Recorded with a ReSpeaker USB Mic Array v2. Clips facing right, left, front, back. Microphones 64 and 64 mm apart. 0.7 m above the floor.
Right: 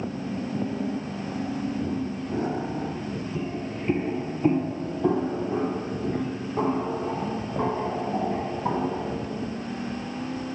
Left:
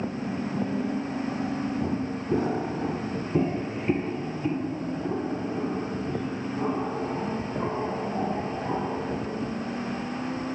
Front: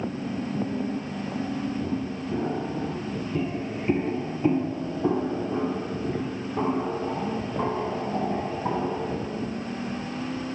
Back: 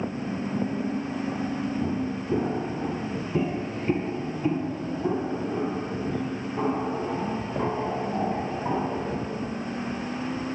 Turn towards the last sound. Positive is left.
turn(degrees=-60)